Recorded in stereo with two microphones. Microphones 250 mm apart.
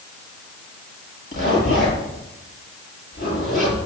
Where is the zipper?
35° left (ahead or behind), 9 m.